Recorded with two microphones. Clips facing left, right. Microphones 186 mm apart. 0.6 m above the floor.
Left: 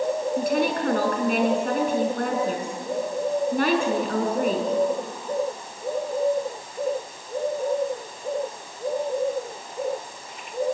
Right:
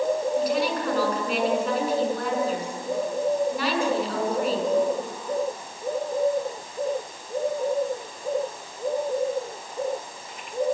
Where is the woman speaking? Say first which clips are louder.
Left 1 dB; 55° left (ahead or behind), 6 m.